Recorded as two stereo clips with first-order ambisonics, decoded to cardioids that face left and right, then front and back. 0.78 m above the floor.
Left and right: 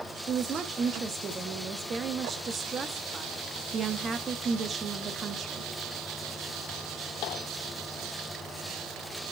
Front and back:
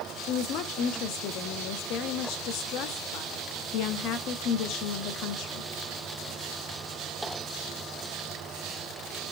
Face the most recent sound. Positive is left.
turn(degrees=-25)